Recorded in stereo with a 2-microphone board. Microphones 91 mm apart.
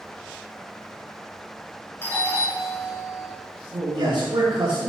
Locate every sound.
2.0 s a doorbell: 25° left (ahead or behind), 3 m
3.7 s a man speaking: 60° right (ahead or behind), 2.5 m